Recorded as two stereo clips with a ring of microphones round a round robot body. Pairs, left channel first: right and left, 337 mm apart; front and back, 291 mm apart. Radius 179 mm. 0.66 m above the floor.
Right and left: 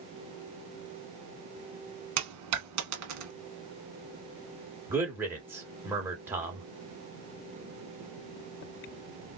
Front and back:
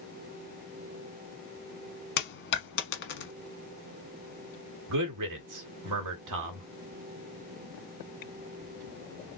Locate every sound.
2.2 s a dropped coin: 50° left, 1.1 m
4.9 s a man speaking: 175° left, 1.8 m